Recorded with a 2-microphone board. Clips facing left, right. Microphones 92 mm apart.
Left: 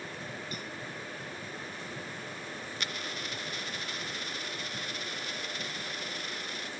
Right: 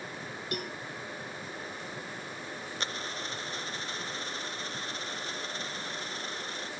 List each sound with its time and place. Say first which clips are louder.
0.5 s a cowbell: right 4 dB; 65° right (ahead or behind)
2.8 s a dropped coin: right 2 dB; 30° right (ahead or behind)